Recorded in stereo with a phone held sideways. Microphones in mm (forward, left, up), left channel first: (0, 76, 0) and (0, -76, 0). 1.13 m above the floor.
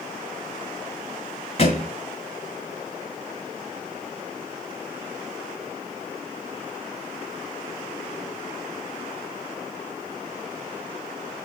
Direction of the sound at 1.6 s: 45° left (ahead or behind).